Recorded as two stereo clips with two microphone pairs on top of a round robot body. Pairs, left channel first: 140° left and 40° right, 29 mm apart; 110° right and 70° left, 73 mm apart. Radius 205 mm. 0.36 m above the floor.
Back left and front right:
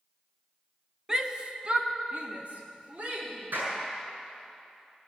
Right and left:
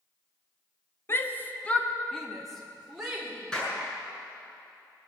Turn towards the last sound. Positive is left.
turn(degrees=-30)